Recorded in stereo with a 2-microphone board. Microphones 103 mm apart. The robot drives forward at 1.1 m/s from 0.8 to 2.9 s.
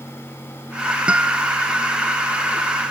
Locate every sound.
1.1 s a guitar: 15° right (ahead or behind); by 1.6 s 10° right (ahead or behind)